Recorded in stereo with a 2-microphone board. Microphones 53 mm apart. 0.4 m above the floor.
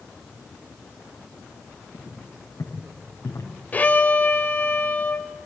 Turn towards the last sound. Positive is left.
turn(degrees=30)  # may be behind; listen again after turning